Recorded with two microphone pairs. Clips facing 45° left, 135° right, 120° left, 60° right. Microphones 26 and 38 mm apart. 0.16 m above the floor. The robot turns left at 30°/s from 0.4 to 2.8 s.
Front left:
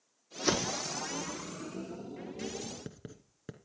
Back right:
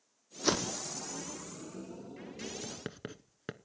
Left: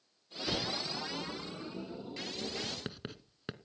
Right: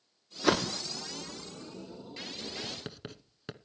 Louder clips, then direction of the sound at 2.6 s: Back right 2 dB, even; 160° right.